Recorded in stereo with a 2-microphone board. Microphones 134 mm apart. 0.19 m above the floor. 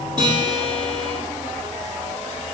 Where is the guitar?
35° right (ahead or behind), 4.5 m.